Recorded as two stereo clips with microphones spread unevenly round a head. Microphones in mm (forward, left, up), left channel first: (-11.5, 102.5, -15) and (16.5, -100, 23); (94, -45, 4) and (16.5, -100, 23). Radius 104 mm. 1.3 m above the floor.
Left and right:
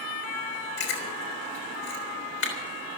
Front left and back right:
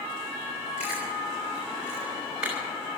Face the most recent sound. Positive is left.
turn(degrees=135)